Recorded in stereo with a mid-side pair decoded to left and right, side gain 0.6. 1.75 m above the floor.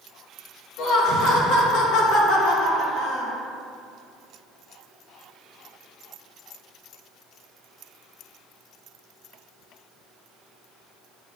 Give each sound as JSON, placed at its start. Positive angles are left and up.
{"t": 0.8, "sound": "laughter", "azimuth_deg": 65, "distance_m": 1.7}